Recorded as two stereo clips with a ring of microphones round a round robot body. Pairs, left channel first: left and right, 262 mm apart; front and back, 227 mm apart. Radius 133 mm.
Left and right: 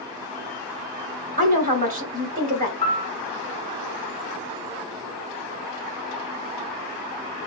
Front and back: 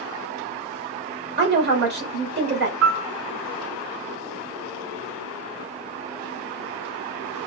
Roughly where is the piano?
Behind.